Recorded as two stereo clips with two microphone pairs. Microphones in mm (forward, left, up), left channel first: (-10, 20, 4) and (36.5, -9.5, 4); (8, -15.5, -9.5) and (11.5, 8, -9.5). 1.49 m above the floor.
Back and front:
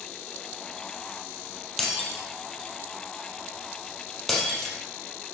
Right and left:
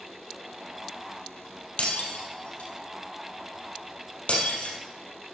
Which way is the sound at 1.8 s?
125° right.